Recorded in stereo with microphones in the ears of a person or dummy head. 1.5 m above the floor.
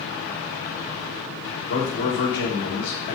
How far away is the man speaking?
About 1.6 m.